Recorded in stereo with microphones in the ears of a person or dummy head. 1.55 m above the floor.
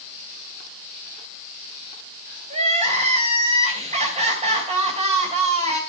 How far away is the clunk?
I don't hear a clunk.